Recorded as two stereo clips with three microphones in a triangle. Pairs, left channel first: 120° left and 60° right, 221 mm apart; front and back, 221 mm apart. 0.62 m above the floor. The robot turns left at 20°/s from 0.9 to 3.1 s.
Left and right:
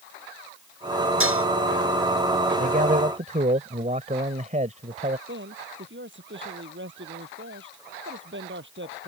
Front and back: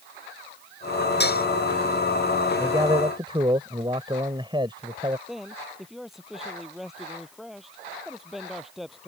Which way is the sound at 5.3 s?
90° right.